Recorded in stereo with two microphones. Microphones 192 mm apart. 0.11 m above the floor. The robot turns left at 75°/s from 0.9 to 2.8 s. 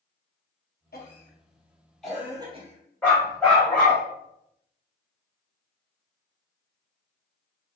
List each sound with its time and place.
0.9 s a cough: 60° left (ahead or behind), 2 m; by 4.0 s 45° right (ahead or behind), 2 m
3.0 s a dog barking: 10° left (ahead or behind), 2 m